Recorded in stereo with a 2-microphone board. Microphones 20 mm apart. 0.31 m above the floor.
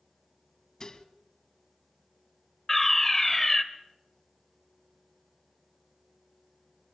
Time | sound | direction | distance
0.8 | dishes clattering | 40° left (ahead or behind) | 1.6 m
2.7 | a fire alarm | 15° left (ahead or behind) | 1.8 m